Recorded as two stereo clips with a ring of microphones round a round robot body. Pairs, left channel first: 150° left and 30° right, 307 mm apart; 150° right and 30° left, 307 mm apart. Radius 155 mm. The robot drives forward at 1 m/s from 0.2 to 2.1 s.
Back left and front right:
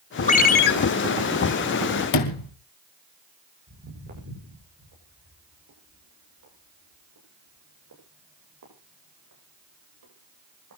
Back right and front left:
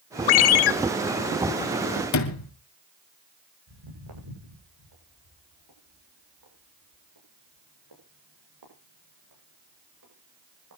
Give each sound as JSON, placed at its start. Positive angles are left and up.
{"t": 0.3, "sound": "a ringtone", "azimuth_deg": -140, "distance_m": 1.0}
{"t": 2.1, "sound": "a sliding door", "azimuth_deg": 170, "distance_m": 2.0}
{"t": 3.7, "sound": "footsteps", "azimuth_deg": 30, "distance_m": 9.0}